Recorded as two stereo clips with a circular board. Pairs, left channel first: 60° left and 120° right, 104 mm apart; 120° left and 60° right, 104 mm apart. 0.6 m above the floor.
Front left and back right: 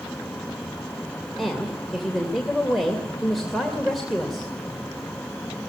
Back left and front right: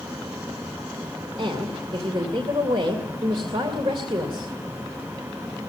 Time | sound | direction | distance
1.4 | a woman speaking | 30° right | 2.5 m